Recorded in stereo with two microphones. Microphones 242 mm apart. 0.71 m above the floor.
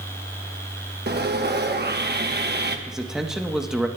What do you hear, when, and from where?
1.1 s sawing: 45° right (ahead or behind), 0.9 m
2.9 s a man speaking: centre (ahead or behind), 0.8 m